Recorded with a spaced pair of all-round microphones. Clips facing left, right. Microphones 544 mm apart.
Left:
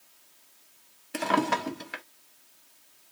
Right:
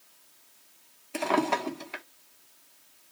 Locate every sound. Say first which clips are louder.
1.1 s a drawer: even; 40° left (ahead or behind), 0.7 m